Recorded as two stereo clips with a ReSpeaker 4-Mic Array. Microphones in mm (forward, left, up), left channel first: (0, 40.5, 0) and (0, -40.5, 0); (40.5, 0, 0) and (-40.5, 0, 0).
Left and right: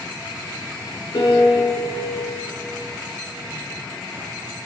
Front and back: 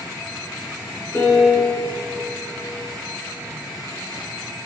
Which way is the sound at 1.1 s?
50° left.